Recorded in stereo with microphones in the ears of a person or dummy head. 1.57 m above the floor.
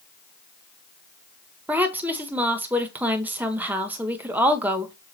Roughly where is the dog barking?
I don't hear a dog barking.